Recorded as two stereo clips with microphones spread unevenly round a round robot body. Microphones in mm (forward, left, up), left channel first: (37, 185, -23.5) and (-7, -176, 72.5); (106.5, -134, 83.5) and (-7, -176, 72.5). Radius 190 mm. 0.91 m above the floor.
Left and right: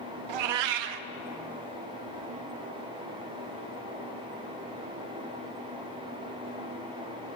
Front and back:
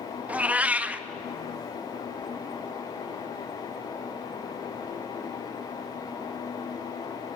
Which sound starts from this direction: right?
A cat meowing, at 0.3 s.